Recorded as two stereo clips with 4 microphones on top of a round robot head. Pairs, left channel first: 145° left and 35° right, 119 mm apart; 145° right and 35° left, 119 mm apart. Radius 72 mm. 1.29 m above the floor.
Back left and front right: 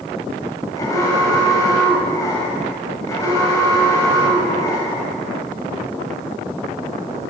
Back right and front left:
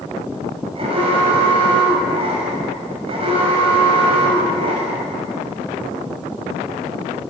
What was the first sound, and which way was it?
An alarm, 80° left.